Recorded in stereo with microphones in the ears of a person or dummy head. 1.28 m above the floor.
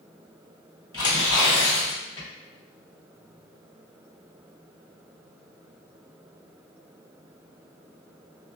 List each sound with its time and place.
0.9 s tearing paper: 25° left (ahead or behind), 1.5 m